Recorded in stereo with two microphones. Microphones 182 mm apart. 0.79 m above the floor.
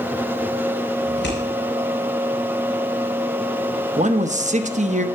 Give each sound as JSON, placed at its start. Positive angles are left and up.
{"t": 1.1, "sound": "scissors", "side_deg": 75, "distance_m": 4.5}
{"t": 4.0, "sound": "a man speaking", "side_deg": -40, "distance_m": 0.7}